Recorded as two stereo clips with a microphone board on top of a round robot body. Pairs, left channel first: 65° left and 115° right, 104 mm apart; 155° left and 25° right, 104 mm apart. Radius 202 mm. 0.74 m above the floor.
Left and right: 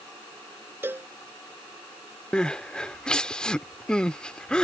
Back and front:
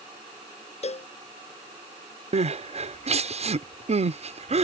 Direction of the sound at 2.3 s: 15° right.